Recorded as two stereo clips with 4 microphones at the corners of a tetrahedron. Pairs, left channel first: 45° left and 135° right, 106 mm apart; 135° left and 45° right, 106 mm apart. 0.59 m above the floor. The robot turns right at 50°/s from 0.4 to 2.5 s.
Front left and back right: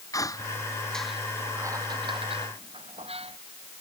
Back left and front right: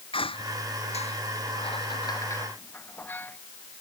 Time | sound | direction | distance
0.1 | a squeak | 100° left | ?